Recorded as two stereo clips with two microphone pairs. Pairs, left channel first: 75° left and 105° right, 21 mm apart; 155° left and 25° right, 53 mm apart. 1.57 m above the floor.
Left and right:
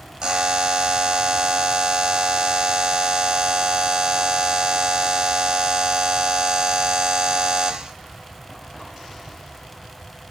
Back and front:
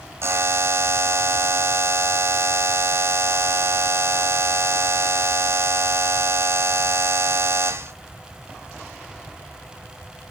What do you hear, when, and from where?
0.2 s a buzzer: 55° right, 0.7 m